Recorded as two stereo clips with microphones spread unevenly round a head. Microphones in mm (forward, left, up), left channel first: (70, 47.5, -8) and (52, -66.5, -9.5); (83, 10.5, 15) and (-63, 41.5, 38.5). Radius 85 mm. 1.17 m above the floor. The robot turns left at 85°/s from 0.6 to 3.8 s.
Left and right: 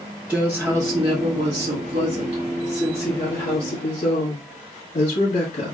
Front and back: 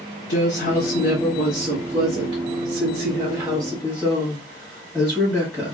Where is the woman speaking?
15° right, 1.5 m; by 5.8 s 70° left, 1.5 m.